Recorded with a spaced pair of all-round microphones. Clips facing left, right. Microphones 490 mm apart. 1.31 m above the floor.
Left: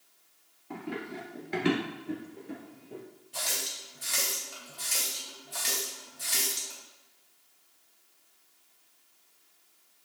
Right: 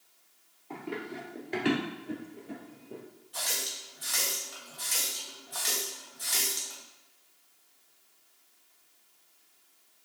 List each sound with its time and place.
0.7 s running footsteps: 35° left (ahead or behind), 1.5 m; by 3.0 s 5° left (ahead or behind), 1.8 m
3.3 s a running tap: 45° left (ahead or behind), 1.0 m